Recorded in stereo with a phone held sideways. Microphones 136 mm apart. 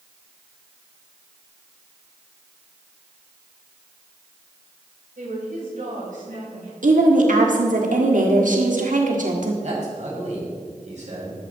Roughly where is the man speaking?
Right.